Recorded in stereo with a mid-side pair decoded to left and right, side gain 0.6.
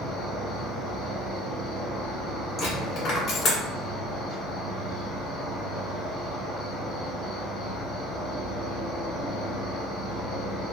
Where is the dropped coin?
45° left, 1.7 m.